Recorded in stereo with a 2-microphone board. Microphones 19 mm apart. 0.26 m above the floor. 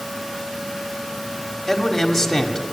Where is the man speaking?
5° left (ahead or behind), 1.5 m.